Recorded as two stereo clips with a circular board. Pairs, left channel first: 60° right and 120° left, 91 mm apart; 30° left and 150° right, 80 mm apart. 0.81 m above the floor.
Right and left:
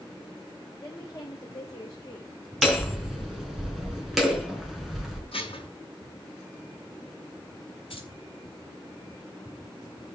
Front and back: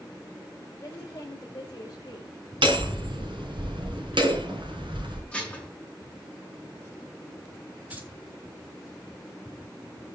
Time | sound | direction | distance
0.8 | a woman speaking | 10° right | 4 m
2.6 | hammering | 150° right | 4.5 m
5.3 | dishes clattering | 45° right | 5.5 m
7.9 | keys jangling | 75° right | 4 m